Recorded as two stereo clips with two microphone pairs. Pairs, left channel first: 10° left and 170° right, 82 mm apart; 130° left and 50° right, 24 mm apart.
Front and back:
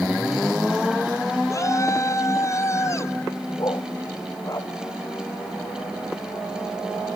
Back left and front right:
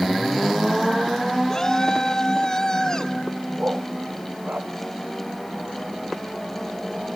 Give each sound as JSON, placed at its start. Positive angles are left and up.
{"t": 1.5, "sound": "a shout", "azimuth_deg": 60}
{"t": 3.6, "sound": "a dog barking", "azimuth_deg": -35}